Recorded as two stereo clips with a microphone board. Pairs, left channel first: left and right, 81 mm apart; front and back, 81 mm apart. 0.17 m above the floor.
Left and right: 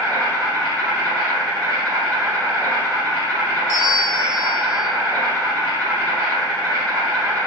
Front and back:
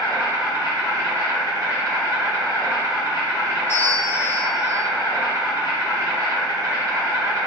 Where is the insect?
160° left, 1.9 m.